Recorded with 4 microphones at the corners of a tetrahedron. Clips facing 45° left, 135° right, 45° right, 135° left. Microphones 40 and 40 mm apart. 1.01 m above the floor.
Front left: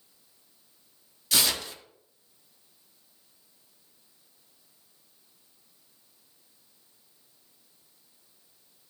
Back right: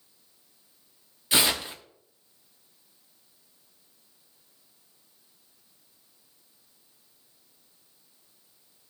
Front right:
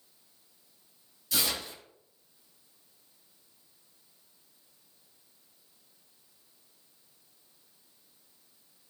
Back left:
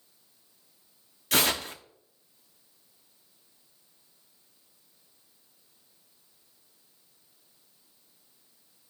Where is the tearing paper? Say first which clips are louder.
Back right 3 dB, back left 6 dB; 165° left, 1.0 m.